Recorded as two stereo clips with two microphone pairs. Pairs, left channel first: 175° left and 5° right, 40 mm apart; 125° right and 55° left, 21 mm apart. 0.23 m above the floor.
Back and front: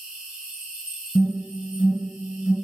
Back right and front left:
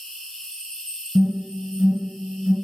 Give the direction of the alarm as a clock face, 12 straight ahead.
8 o'clock.